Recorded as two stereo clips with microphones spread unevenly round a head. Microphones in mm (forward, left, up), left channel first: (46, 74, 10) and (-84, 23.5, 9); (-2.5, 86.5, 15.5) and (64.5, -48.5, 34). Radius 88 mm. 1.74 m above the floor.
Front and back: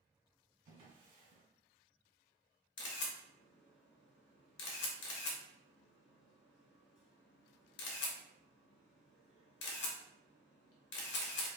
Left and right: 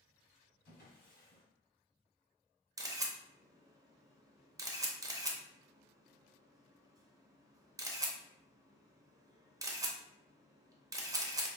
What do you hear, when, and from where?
0.7 s a drawer: 165° left, 2.0 m
2.8 s a camera shutter: 5° left, 0.6 m